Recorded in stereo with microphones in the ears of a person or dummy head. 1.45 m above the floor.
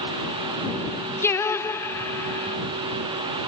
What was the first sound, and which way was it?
Singing, 15° left (ahead or behind).